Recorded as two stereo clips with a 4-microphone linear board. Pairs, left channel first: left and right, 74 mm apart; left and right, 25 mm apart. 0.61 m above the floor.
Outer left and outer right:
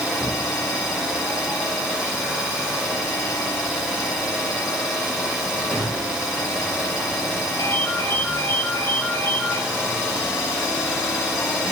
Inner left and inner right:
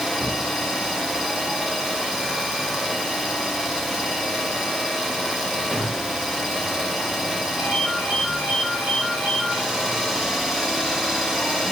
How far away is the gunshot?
About 0.8 m.